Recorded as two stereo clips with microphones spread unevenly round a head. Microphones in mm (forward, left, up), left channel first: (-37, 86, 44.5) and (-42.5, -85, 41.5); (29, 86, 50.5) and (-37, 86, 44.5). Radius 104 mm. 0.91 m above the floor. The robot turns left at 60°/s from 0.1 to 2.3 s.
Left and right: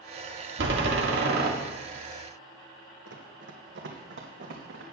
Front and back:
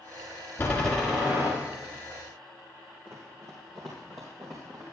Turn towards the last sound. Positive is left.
turn(degrees=-110)